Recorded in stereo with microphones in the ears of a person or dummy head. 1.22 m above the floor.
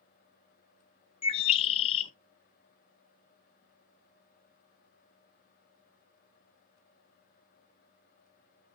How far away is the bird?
About 0.5 m.